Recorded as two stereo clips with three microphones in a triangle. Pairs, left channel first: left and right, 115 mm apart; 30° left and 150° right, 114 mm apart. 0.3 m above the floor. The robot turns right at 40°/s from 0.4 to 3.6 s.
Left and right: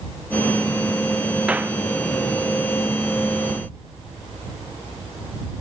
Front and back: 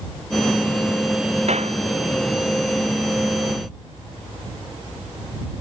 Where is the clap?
170° right; by 1.8 s 160° right.